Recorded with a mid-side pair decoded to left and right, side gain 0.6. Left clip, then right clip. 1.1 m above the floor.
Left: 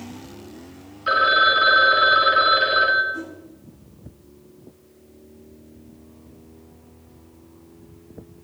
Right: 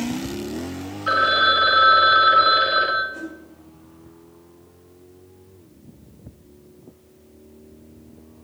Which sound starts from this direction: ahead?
A phone ringing, at 1.1 s.